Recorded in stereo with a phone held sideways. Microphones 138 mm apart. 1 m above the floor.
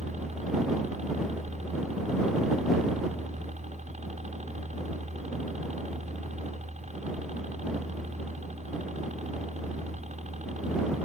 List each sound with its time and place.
0.0 s a helicopter: 55° right (ahead or behind)